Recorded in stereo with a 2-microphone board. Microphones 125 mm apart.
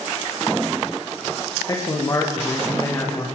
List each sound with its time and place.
1.7 s a man speaking: 25° left (ahead or behind), 7.5 m; by 3.3 s 20° left (ahead or behind), 7.5 m